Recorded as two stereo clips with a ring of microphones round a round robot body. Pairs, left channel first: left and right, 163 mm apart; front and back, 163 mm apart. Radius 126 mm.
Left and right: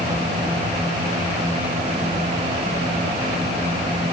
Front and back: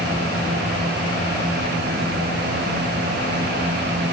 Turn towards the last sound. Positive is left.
No sound to turn to.